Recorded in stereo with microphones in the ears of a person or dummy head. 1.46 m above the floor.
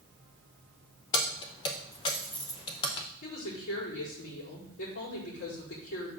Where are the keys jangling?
20° left (ahead or behind), 0.7 m.